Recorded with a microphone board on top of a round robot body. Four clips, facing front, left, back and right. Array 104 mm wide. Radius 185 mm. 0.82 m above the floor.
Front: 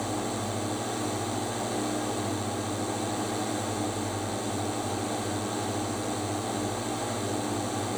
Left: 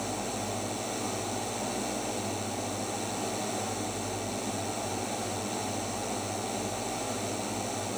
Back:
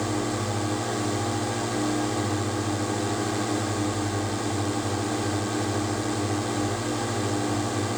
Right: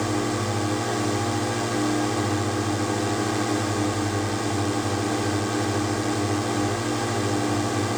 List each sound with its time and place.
0.0 s a drone: 110° right